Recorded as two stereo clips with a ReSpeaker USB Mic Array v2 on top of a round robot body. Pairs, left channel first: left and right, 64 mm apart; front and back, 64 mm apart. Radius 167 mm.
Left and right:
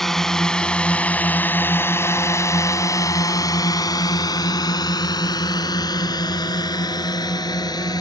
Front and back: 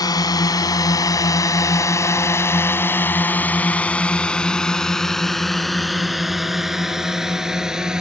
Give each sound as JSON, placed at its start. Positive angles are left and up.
{"t": 0.0, "sound": "a drone", "azimuth_deg": 5}